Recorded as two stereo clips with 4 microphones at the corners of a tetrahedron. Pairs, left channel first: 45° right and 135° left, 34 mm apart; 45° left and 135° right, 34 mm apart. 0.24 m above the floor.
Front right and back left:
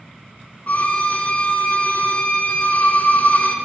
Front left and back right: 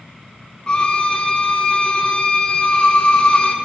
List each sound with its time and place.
0.7 s a violin: 15° right, 1.2 m